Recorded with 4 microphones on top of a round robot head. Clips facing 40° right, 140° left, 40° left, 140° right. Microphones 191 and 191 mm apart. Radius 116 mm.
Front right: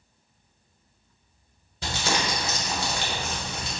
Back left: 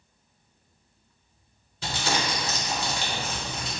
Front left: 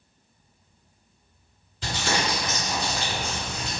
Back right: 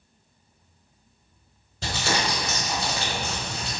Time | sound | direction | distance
1.8 | crumpling | 90° right | 1.2 m